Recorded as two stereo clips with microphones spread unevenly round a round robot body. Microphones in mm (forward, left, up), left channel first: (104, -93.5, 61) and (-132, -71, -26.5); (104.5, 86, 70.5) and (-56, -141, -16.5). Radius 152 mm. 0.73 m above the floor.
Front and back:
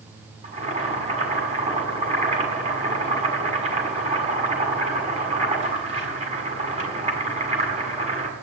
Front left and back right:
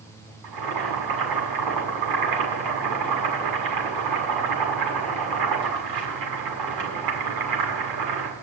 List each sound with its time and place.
0.4 s boiling: 125° right, 6.5 m